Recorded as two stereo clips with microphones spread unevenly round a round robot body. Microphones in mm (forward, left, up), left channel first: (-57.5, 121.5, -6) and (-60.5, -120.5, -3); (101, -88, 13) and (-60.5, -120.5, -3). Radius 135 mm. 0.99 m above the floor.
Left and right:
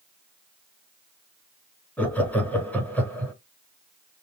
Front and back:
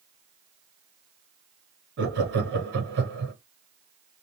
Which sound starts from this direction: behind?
Laughter, at 2.0 s.